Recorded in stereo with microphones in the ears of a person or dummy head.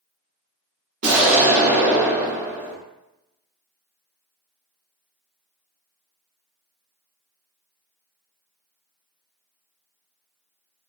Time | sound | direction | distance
1.0 | an explosion | 45° right (ahead or behind) | 0.7 m